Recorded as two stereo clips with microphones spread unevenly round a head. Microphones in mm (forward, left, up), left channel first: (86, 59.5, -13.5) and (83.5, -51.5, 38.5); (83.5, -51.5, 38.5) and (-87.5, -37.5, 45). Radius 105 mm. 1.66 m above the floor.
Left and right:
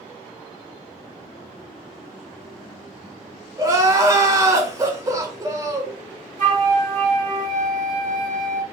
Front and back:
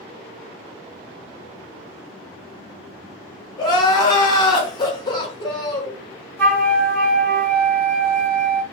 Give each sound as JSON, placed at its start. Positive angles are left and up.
{"t": 3.6, "sound": "crying", "azimuth_deg": -70, "distance_m": 1.0}
{"t": 6.4, "sound": "a flute", "azimuth_deg": -85, "distance_m": 1.1}